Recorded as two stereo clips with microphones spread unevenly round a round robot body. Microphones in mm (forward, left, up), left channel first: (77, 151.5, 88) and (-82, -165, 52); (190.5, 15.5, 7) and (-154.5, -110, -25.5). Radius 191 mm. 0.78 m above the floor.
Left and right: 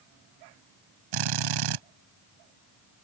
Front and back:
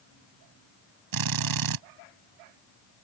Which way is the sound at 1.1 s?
130° right.